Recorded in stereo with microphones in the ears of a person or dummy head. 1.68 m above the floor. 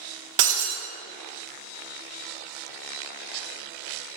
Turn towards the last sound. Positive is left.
turn(degrees=-45)  # may be behind; listen again after turning